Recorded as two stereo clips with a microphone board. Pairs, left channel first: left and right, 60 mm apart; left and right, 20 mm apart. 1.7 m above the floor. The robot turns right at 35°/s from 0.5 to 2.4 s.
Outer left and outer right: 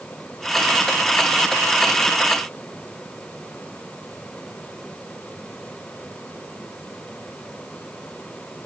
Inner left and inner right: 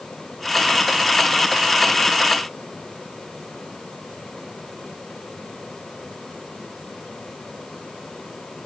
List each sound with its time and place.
Only background noise.